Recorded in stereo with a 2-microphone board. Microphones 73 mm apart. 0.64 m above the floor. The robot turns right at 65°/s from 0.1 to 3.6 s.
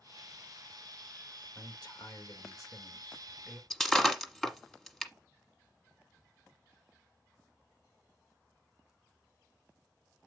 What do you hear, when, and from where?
1.6 s a man speaking: 55° left, 1.9 m; by 3.6 s 170° right, 1.9 m
3.7 s breaking glass: 5° left (ahead or behind), 1.3 m